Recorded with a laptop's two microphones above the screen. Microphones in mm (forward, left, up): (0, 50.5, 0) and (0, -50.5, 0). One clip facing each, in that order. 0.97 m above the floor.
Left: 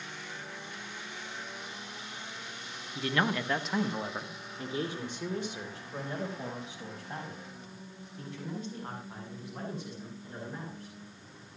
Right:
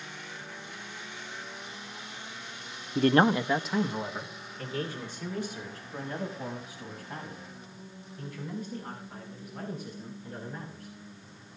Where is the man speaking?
60° right (ahead or behind), 0.6 m; by 10.9 s 25° left (ahead or behind), 10.5 m.